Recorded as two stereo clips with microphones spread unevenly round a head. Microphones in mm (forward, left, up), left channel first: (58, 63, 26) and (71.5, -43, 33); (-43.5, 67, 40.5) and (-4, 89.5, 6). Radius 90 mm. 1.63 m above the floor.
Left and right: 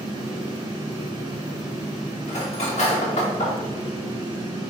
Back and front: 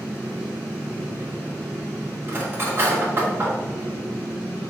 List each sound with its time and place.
0.0 s a fan: 45° right, 1.3 m
2.3 s cutlery clinking: 95° left, 1.6 m